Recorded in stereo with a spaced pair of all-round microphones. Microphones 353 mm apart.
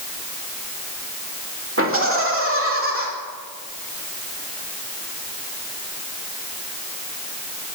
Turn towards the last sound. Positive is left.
turn(degrees=-35)  # may be behind; listen again after turning